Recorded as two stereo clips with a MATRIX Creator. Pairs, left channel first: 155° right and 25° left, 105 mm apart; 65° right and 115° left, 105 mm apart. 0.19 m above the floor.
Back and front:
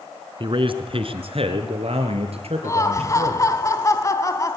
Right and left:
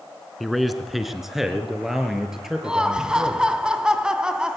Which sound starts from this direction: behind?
Laughter, at 2.6 s.